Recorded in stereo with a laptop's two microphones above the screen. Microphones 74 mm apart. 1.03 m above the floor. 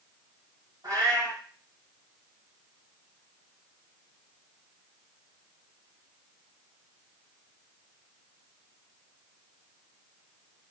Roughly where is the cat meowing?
Right.